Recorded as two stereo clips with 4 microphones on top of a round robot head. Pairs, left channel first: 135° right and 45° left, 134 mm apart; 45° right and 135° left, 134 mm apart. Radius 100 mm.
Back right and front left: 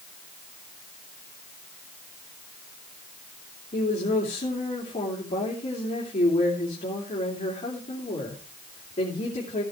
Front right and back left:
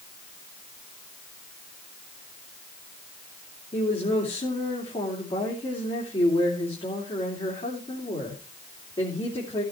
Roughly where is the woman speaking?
Right.